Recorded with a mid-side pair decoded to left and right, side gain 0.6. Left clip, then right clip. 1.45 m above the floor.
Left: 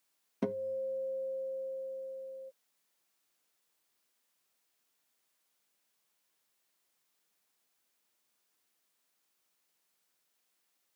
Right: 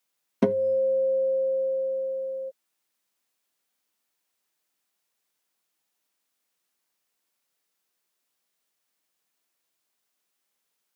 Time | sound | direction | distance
0.4 | a guitar | 55° right | ?